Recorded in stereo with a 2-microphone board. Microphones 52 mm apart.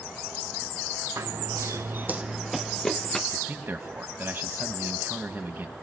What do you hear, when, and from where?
1.2 s running footsteps: 75° right (ahead or behind), 1.2 m; by 3.2 s 15° left (ahead or behind), 1.9 m
3.3 s a man speaking: 45° right (ahead or behind), 1.6 m